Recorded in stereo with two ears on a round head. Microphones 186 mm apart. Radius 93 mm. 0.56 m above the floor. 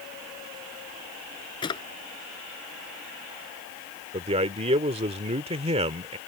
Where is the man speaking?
30° right (ahead or behind).